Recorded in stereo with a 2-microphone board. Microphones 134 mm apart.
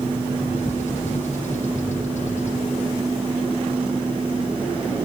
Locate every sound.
0.4 s a bird: 60° left (ahead or behind), 4.5 m